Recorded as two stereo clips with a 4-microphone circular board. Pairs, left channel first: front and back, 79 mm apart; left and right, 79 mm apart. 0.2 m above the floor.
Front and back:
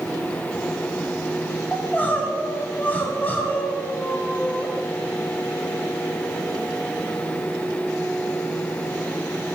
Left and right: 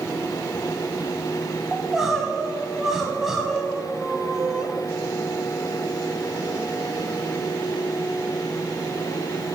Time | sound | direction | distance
1.7 | crying | 15° right | 1.7 m